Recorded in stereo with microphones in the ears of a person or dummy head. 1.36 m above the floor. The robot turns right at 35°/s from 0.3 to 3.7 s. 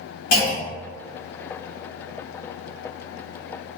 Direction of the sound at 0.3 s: 55° left (ahead or behind).